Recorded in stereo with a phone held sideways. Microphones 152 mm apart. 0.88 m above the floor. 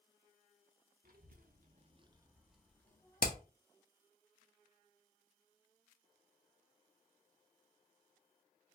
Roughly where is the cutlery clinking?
No cutlery clinking in this recording.